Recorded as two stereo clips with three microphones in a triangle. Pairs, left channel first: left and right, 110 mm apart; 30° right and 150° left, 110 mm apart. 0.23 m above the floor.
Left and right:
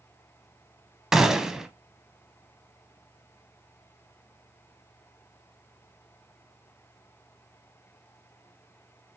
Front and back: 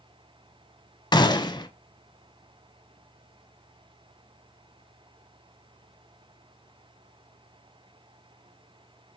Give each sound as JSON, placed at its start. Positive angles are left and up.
{"t": 1.1, "sound": "a gunshot", "azimuth_deg": -5, "distance_m": 0.6}